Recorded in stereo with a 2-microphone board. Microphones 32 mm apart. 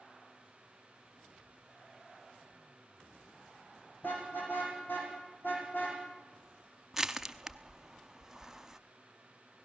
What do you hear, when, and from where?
4.0 s a car horn: 80° left, 7 m; by 6.0 s 85° left, 7 m
6.9 s crushing: 10° right (ahead or behind), 0.7 m